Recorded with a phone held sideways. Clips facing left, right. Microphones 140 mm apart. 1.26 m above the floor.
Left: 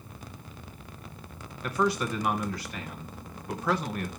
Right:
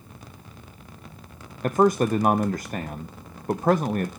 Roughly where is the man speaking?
Right.